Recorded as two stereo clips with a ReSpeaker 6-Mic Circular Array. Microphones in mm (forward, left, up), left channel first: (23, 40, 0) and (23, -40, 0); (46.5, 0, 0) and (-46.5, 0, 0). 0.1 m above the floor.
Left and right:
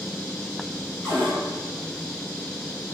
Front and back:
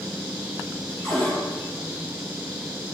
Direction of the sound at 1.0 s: 20° left.